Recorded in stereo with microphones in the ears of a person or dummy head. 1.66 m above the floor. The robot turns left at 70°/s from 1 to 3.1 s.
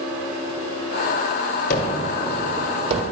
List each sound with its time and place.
1.7 s a gunshot: 50° left (ahead or behind), 1.5 m; by 3.0 s 40° right (ahead or behind), 1.5 m